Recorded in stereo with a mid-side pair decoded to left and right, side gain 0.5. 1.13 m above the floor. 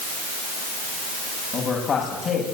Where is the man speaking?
50° left, 7 m.